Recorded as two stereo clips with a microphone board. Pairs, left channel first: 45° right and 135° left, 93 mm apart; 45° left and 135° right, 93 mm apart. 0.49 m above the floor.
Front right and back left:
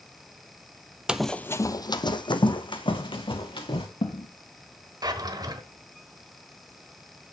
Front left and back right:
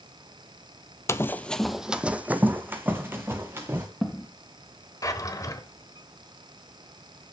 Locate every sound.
1.1 s running footsteps: 65° left, 0.5 m; by 3.9 s 70° right, 2 m
2.9 s footsteps: 60° right, 3 m; by 4.3 s 45° right, 3.5 m
5.0 s a drawer: 95° left, 1.2 m